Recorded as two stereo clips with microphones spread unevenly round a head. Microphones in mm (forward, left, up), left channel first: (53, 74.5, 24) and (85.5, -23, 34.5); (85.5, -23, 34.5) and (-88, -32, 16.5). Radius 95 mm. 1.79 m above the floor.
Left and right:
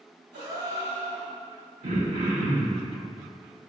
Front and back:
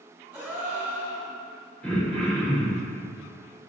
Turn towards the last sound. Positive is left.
turn(degrees=-80)